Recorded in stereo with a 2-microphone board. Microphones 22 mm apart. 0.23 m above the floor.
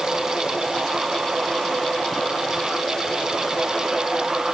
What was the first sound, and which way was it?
Only background noise.